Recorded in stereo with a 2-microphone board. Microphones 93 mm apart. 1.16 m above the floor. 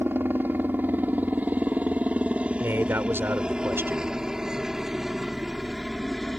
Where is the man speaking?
25° right (ahead or behind).